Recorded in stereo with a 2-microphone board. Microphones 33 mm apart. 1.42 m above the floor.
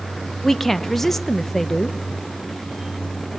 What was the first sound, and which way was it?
A woman speaking, 10° left (ahead or behind).